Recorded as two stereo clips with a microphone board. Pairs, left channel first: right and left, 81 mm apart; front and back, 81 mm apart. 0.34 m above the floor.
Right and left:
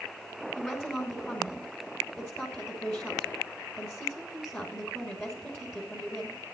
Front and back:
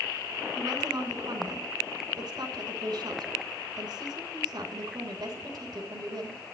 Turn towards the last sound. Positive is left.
turn(degrees=-150)